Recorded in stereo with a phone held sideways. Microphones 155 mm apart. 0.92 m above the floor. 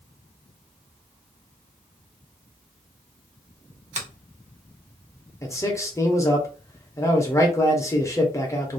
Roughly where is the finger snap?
Right.